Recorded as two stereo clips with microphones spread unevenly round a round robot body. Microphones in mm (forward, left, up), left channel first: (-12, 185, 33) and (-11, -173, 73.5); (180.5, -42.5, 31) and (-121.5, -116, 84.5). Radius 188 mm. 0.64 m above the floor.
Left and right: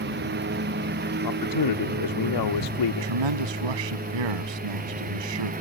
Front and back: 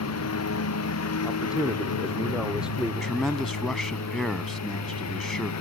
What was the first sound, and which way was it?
A lawn mower, 25° right.